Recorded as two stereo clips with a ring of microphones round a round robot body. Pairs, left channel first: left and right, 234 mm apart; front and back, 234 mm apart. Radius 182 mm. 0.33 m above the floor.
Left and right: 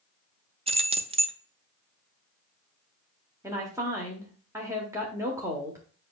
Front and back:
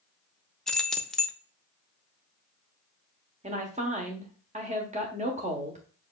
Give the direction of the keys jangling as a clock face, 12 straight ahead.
3 o'clock.